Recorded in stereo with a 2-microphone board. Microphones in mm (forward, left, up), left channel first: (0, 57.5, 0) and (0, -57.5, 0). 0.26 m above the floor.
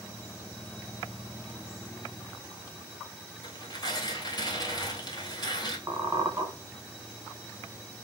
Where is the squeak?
35° right (ahead or behind), 0.7 m.